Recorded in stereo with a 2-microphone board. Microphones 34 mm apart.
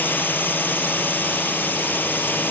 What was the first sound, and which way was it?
A drone, 70° left (ahead or behind).